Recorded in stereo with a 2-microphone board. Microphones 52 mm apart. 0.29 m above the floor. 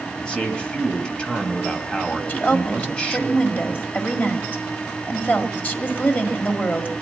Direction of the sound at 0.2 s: 20° left (ahead or behind).